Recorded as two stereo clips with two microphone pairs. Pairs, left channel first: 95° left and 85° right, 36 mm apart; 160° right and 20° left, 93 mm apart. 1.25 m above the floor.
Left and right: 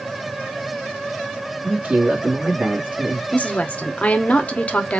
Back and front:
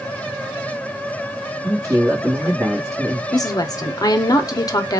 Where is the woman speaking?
150° left, 0.8 m.